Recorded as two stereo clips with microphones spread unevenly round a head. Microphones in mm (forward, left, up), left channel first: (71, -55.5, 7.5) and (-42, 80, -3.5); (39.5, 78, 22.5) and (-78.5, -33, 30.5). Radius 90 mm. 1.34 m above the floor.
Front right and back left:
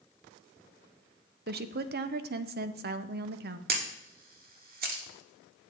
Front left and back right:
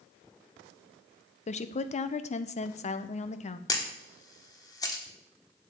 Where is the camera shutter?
110° left, 1.2 m.